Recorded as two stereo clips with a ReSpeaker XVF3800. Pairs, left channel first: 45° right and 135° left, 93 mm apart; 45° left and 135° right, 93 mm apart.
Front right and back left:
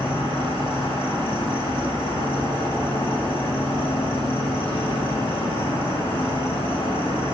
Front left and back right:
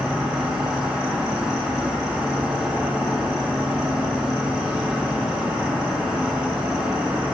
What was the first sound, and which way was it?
An insect, 55° right.